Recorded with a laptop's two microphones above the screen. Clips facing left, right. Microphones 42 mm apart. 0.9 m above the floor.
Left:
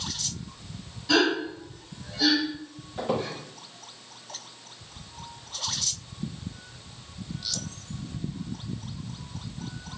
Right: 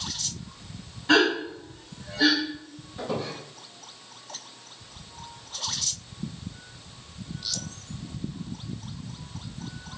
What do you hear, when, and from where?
1.1 s a gasp: 30° right (ahead or behind), 2.5 m
3.0 s a squeak: 55° left (ahead or behind), 3.5 m